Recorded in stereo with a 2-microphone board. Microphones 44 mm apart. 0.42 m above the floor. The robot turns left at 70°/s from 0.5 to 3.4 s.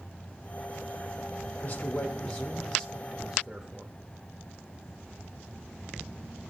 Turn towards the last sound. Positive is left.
turn(degrees=-35)